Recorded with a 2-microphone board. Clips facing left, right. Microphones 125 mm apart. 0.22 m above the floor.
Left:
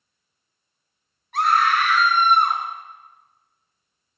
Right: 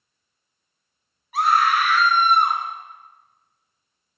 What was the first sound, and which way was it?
A scream, 5° right (ahead or behind).